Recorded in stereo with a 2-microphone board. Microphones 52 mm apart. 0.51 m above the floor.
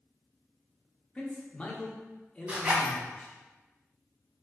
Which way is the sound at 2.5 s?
30° right (ahead or behind).